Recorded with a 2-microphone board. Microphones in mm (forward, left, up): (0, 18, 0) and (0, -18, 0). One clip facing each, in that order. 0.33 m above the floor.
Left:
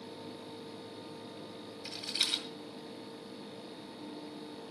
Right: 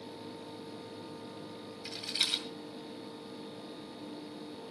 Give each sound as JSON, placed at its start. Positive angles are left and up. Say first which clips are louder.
{"t": 1.9, "sound": "a rattle", "louder": "right 1 dB", "side_deg": -5, "distance_m": 2.0}